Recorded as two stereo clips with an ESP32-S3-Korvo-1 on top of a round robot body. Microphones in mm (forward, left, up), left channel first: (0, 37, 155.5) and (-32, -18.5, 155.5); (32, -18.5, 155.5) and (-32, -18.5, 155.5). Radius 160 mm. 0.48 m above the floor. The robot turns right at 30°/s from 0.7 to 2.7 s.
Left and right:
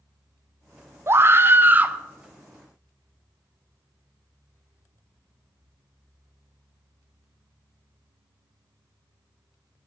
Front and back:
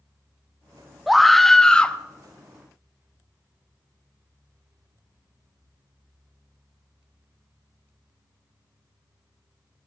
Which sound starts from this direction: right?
A scream, at 1.1 s.